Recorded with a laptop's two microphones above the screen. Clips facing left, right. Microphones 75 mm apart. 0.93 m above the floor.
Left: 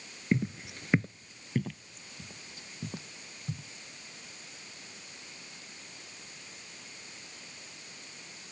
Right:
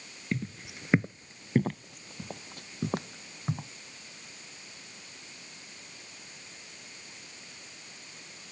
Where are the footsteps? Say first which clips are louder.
Left 5 dB; 25° left (ahead or behind); by 3.7 s 65° right (ahead or behind).